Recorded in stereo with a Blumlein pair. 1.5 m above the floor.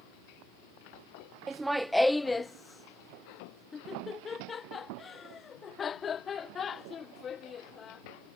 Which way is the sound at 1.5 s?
15° right.